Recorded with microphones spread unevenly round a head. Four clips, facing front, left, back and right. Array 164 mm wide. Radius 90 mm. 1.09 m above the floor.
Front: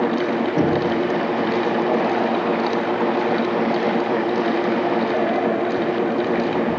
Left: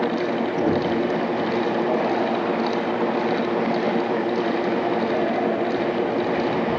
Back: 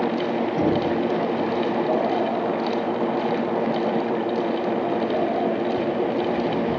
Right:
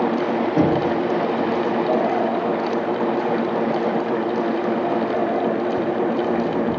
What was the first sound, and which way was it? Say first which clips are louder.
Knocking: right 4 dB, front 2 dB; 55° right.